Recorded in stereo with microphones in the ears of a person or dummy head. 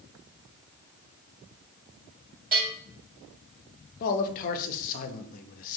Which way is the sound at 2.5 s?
30° right (ahead or behind).